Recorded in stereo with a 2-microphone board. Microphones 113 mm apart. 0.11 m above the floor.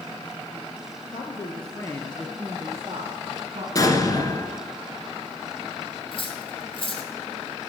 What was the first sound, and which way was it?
A woman speaking, 55° left (ahead or behind).